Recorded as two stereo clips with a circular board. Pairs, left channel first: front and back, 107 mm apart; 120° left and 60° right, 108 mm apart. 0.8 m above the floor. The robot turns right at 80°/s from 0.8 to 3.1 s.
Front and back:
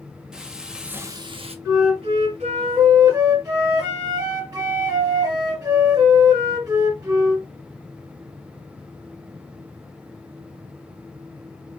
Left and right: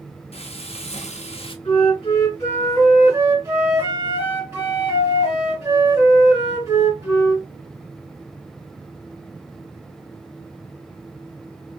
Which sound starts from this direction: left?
Frying, at 0.3 s.